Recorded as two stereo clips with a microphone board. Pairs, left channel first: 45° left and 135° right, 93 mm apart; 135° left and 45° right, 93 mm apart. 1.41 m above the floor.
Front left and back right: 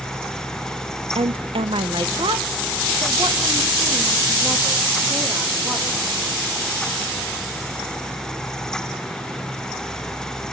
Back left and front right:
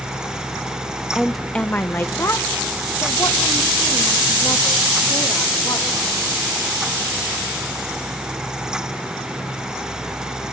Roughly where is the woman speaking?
Behind right.